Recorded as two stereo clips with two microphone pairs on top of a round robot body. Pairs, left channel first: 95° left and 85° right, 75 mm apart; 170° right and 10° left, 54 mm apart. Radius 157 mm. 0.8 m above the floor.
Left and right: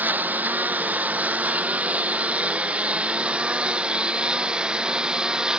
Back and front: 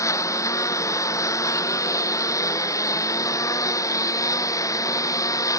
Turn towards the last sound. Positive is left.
turn(degrees=-165)